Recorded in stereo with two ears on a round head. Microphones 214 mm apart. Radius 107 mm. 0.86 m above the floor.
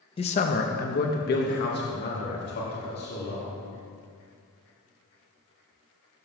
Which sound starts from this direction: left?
A man speaking, at 0.2 s.